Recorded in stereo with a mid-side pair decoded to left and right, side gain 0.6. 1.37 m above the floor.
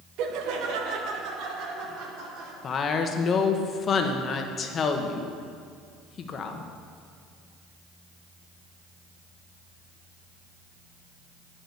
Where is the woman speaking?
40° left, 1.1 m.